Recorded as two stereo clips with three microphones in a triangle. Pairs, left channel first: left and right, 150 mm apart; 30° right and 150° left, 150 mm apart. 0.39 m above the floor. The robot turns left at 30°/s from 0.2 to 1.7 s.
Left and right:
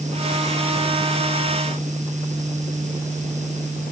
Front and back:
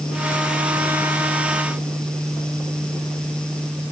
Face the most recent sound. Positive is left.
No sound to turn to.